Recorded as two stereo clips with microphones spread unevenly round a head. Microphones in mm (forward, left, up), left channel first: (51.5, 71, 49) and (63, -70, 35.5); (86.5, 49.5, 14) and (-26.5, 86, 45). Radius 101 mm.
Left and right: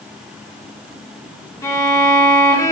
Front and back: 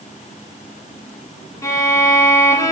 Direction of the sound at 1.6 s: 50° left.